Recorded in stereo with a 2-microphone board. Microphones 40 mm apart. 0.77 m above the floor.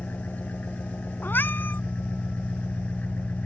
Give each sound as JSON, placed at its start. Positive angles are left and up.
{"t": 0.0, "sound": "an engine running", "side_deg": 50}
{"t": 1.2, "sound": "a cat meowing", "side_deg": 65}